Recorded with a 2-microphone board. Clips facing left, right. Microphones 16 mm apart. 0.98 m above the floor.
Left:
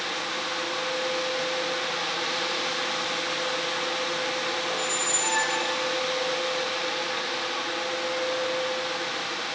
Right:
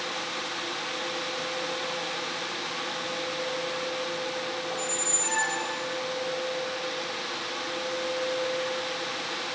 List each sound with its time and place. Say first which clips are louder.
4.7 s a squeak: left 4 dB; 50° left (ahead or behind), 4 m